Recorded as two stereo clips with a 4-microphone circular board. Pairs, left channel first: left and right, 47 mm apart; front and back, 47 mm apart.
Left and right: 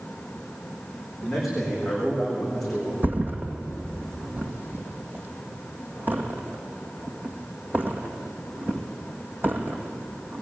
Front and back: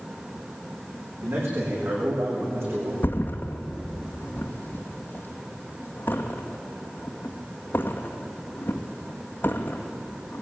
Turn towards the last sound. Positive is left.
turn(degrees=-40)